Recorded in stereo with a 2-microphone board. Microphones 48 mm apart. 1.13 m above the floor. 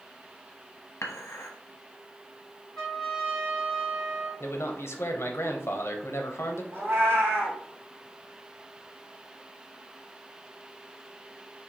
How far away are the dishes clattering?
About 0.9 m.